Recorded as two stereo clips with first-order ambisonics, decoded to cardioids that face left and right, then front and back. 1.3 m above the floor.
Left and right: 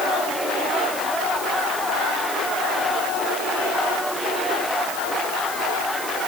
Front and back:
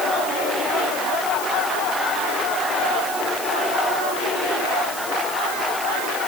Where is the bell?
No bell in this recording.